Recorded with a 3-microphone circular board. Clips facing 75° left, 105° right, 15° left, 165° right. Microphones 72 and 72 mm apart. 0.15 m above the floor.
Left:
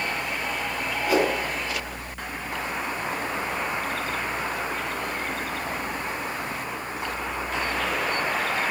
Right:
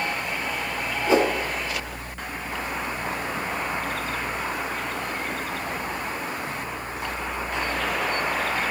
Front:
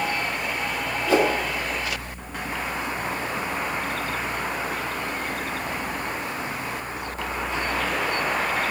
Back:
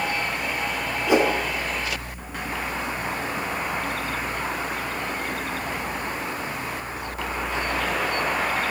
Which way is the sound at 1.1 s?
120° right.